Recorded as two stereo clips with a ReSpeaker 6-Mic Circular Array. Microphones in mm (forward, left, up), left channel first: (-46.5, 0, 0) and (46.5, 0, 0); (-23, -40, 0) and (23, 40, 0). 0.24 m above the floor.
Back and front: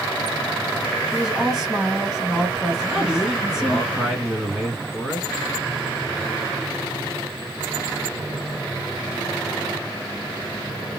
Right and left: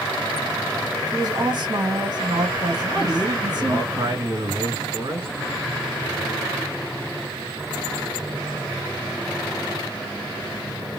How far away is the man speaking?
About 2 m.